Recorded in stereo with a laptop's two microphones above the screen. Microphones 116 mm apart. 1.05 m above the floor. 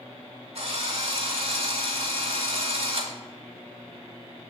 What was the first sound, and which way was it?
A drill, 60° right (ahead or behind).